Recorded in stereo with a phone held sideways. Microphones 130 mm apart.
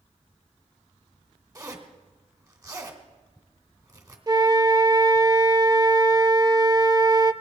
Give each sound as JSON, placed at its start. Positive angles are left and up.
{"t": 1.6, "sound": "a zipper", "side_deg": -30, "distance_m": 1.9}
{"t": 4.3, "sound": "a flute", "side_deg": -30, "distance_m": 0.7}